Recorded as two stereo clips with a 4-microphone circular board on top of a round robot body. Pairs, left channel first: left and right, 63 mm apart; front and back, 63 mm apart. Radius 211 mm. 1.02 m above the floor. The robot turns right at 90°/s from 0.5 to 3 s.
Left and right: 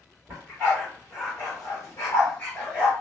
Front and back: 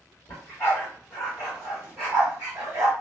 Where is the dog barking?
5° right, 1.6 m; by 2.9 s 150° right, 1.6 m.